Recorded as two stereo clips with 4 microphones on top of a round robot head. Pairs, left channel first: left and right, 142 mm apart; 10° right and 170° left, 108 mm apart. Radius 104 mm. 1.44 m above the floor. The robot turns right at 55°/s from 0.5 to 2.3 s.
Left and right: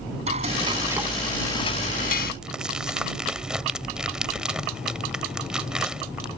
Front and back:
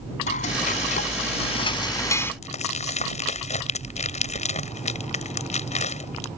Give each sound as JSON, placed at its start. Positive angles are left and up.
{"t": 0.3, "sound": "frying", "azimuth_deg": -35}
{"t": 2.4, "sound": "crumpling", "azimuth_deg": -5}